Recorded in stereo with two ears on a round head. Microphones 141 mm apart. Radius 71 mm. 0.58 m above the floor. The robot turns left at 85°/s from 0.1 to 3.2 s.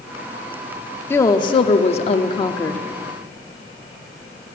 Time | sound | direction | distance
1.1 | a woman speaking | 160° left | 0.8 m